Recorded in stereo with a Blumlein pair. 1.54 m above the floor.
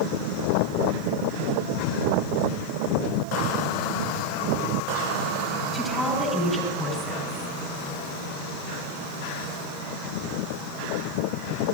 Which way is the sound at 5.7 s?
5° left.